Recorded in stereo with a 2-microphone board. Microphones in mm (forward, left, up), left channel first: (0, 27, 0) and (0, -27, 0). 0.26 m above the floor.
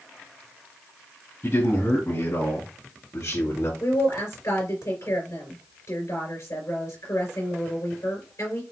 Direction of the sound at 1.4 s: 55° left (ahead or behind).